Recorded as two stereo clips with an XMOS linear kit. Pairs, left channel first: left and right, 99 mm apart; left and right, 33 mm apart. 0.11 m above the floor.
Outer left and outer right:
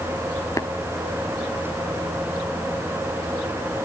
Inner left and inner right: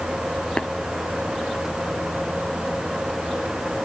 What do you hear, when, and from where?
0.6 s tapping: 35° left (ahead or behind), 0.8 m